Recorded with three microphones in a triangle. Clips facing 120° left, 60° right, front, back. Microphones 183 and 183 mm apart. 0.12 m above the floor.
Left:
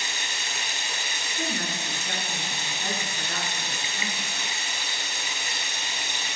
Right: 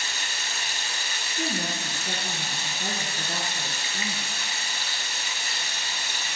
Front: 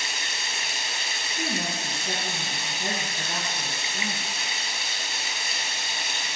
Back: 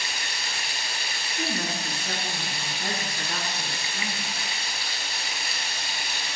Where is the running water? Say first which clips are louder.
Left 1 dB, even; 55° left, 0.9 m.